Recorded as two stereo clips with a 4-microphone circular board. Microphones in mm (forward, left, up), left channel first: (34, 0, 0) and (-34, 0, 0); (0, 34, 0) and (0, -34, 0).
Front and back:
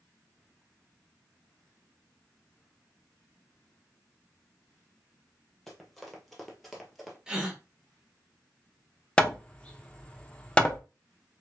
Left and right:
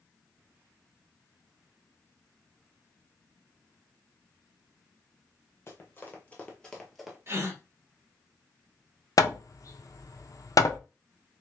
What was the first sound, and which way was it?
Running footsteps, 85° left.